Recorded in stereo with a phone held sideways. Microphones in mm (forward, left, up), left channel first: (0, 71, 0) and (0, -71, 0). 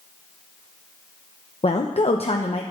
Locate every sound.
1.6 s a woman speaking: 45° left (ahead or behind), 0.8 m